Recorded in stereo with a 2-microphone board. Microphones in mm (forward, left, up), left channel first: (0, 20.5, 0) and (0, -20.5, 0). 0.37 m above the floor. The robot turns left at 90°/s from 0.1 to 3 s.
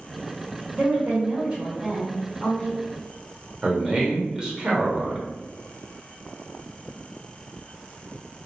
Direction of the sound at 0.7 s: 45° right.